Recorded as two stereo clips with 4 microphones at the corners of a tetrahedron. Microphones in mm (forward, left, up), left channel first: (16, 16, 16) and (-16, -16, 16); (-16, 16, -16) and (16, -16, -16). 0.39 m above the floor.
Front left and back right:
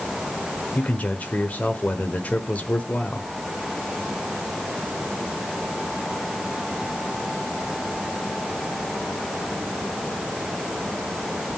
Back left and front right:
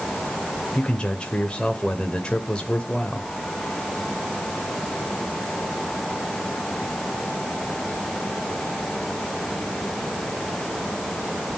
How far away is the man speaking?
About 1.2 m.